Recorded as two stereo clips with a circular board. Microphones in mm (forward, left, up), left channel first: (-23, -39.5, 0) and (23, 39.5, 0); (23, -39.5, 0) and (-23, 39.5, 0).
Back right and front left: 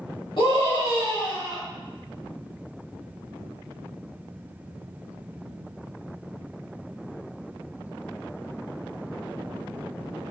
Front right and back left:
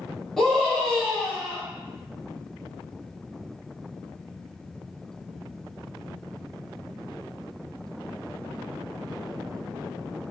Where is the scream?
145° right, 1.6 m.